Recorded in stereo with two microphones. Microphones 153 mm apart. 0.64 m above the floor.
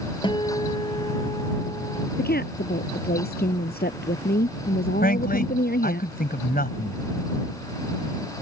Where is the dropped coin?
I don't hear a dropped coin.